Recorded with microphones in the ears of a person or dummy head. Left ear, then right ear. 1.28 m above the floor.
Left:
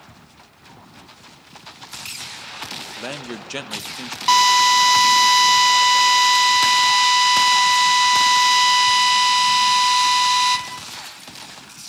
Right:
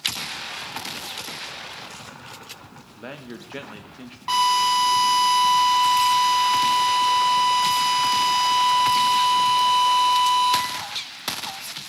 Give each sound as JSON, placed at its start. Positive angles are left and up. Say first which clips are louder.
{"t": 3.0, "sound": "a man speaking", "louder": "left 7 dB", "side_deg": 90, "distance_m": 1.0}
{"t": 4.3, "sound": "a drill", "louder": "left 5 dB", "side_deg": 65, "distance_m": 2.0}